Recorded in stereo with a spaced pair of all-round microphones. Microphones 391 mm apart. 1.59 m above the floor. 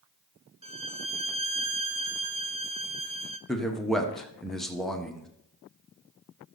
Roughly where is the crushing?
No crushing in this recording.